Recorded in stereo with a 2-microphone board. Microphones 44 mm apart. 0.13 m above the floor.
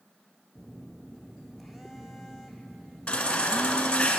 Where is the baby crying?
25° left (ahead or behind), 1.3 m.